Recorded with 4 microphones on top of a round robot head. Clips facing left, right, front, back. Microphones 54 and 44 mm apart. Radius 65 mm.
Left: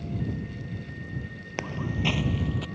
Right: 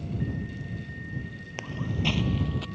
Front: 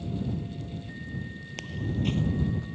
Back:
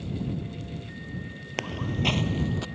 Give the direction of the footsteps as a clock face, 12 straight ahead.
7 o'clock.